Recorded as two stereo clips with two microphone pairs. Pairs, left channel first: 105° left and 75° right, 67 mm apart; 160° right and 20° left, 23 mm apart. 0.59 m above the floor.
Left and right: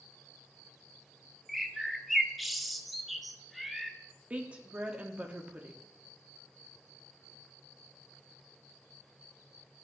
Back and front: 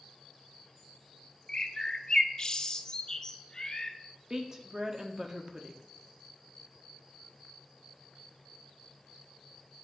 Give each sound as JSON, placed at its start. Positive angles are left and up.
{"t": 1.5, "sound": "a bird", "azimuth_deg": -175, "distance_m": 0.6}
{"t": 4.3, "sound": "a woman speaking", "azimuth_deg": -15, "distance_m": 1.1}